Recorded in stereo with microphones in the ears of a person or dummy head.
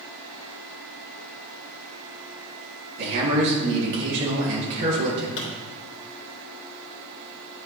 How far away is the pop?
About 2 m.